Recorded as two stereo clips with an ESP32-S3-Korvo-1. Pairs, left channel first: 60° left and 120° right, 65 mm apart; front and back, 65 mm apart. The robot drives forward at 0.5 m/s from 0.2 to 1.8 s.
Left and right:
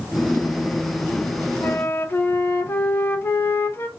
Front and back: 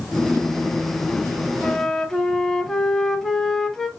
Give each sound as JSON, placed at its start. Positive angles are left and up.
{"t": 1.6, "sound": "a flute", "azimuth_deg": 60, "distance_m": 0.5}